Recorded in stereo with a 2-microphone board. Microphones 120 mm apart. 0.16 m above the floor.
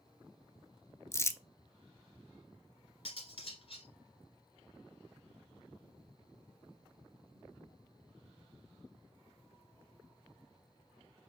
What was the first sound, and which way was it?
Crumpling, 25° left (ahead or behind).